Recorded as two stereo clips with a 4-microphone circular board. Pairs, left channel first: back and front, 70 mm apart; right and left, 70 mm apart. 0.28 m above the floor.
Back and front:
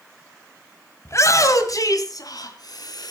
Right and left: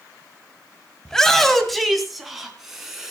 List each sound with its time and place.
1.1 s a shout: 165° right, 2.0 m; by 3.1 s 175° left, 4 m